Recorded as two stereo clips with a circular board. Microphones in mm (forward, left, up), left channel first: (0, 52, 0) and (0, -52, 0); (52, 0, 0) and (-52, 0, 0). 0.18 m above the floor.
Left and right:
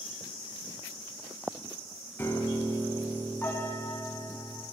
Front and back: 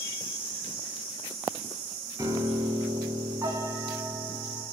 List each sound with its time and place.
2.2 s a piano: 150° left, 0.7 m